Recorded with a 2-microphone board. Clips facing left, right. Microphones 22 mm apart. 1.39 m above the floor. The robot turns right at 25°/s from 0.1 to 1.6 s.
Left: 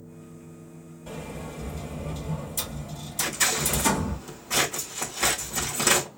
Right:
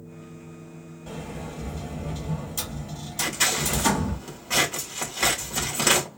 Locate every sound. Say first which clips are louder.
1.1 s a sliding door: right 1 dB; 15° right (ahead or behind), 1.3 m; by 4.2 s 25° right (ahead or behind), 1.3 m
3.2 s scissors: right 1 dB; 35° right (ahead or behind), 2 m